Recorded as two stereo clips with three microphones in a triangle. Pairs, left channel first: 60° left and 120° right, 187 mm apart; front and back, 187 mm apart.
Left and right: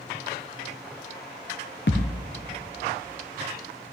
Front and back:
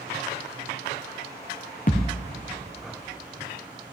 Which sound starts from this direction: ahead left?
A thud, at 1.9 s.